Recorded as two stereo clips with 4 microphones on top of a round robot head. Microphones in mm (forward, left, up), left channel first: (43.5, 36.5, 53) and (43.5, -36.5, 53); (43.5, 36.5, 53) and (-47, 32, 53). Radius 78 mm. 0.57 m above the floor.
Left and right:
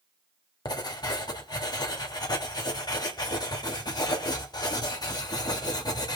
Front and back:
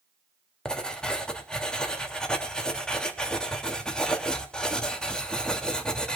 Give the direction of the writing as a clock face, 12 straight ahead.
9 o'clock.